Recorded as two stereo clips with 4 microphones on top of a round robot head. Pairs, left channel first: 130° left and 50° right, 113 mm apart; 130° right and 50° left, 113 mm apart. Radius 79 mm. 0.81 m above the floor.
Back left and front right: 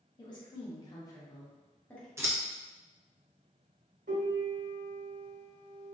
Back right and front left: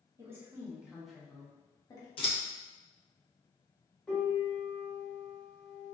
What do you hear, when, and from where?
0.2 s a woman speaking: 100° left, 1.0 m; by 2.1 s 155° right, 0.9 m
2.2 s scissors: 110° right, 0.7 m
4.1 s a piano: 50° right, 0.9 m